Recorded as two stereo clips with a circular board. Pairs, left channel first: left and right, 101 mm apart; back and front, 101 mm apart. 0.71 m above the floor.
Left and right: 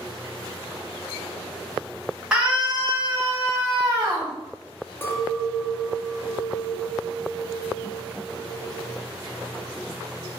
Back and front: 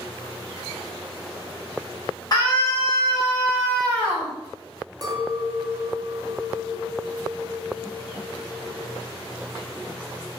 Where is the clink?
30° left, 0.6 m.